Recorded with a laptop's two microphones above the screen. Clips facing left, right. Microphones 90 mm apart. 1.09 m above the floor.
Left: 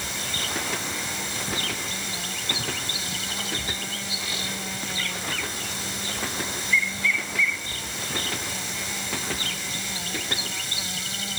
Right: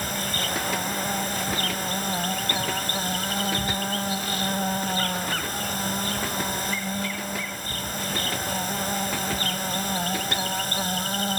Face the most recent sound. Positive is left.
turn(degrees=-50)  # may be behind; listen again after turning